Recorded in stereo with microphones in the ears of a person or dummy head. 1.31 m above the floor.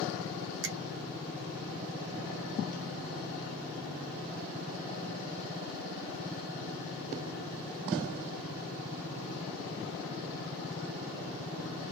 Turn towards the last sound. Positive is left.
turn(degrees=-60)  # may be behind; listen again after turning